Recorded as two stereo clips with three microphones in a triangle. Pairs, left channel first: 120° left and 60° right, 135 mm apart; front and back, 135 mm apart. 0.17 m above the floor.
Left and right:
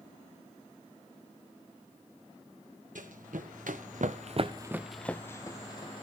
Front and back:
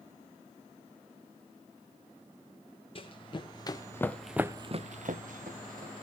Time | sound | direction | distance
3.0 | running footsteps | 45° right | 2 m